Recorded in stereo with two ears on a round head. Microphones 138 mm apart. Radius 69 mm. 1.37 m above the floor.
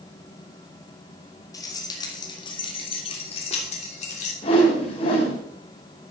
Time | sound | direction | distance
1.5 | keys jangling | 25° left (ahead or behind) | 3 m
4.4 | a whoosh | 35° left (ahead or behind) | 5 m